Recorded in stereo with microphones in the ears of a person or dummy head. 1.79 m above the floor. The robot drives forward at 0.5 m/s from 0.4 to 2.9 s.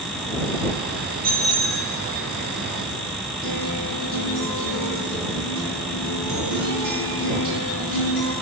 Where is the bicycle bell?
50° right (ahead or behind), 4 m; by 1.9 s 55° right (ahead or behind), 4 m.